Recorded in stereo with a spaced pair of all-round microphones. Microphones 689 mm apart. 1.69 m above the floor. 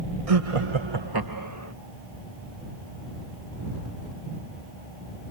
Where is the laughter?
55° right (ahead or behind); by 1.7 s 20° right (ahead or behind).